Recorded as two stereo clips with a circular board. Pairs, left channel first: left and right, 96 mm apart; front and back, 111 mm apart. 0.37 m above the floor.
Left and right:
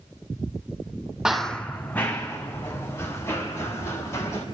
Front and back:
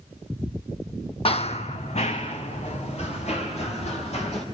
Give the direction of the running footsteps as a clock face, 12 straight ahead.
12 o'clock.